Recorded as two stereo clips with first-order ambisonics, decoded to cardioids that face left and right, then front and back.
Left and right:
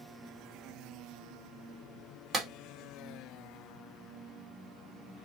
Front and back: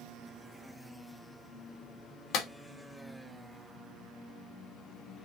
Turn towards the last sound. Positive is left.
turn(degrees=-25)